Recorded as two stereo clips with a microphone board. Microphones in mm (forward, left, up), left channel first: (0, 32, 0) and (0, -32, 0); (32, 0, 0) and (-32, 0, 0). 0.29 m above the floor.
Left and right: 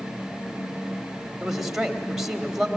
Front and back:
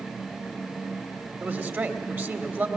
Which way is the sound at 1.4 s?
165° right.